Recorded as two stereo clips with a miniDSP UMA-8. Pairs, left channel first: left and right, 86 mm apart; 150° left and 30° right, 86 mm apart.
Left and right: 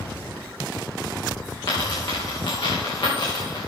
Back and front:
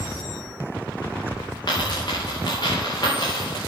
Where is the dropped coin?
110° left, 5 m.